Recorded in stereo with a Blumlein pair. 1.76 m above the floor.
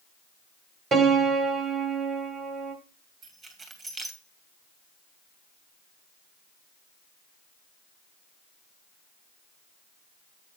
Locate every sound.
0.9 s a piano: 20° right, 1.8 m
3.2 s keys jangling: 20° right, 2.0 m